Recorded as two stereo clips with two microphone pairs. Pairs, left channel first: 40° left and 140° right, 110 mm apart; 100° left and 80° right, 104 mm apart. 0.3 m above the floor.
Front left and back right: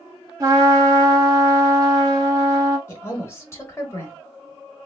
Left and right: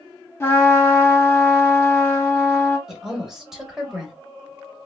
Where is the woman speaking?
Straight ahead, 0.9 m.